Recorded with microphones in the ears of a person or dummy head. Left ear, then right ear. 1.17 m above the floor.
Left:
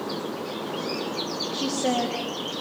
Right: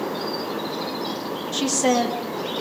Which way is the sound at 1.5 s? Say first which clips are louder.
Right 6 dB; 45° right (ahead or behind).